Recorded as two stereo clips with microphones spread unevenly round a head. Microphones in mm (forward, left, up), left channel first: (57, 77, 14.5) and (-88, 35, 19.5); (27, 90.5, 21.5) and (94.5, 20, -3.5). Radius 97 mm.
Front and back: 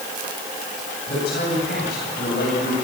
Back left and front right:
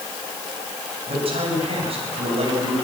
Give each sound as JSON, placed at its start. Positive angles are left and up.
{"t": 1.1, "sound": "a man speaking", "azimuth_deg": -25, "distance_m": 9.5}